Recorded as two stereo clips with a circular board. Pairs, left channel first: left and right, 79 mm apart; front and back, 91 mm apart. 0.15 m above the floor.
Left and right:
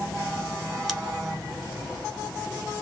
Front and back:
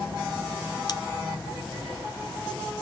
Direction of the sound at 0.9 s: Straight ahead.